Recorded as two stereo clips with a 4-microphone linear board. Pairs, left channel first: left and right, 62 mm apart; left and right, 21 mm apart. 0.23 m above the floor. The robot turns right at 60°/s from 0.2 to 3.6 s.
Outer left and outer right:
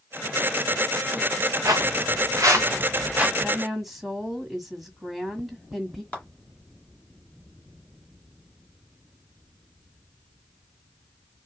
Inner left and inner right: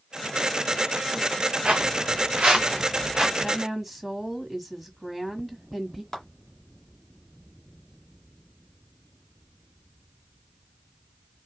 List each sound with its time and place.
1.6 s footsteps: 70° right (ahead or behind), 1.0 m; by 3.3 s 20° right (ahead or behind), 2.0 m
3.4 s a woman speaking: 5° left (ahead or behind), 1.8 m; by 6.0 s centre (ahead or behind), 1.8 m
6.1 s a clap: 20° left (ahead or behind), 2 m